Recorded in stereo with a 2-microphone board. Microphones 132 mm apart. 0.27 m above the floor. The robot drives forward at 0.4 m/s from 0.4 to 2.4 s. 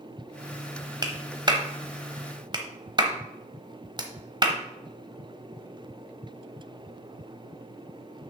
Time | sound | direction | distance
1.0 | a clap | 35° right (ahead or behind) | 1.1 m